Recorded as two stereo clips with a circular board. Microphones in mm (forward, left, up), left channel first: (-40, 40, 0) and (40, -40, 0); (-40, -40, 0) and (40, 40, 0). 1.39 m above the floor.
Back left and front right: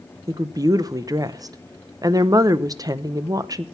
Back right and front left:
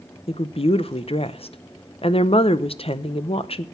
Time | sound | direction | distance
0.3 | a woman speaking | 105° right | 0.8 m